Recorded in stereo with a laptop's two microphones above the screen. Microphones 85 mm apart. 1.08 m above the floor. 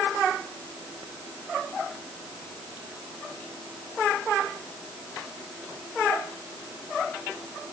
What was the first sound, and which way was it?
Only background noise.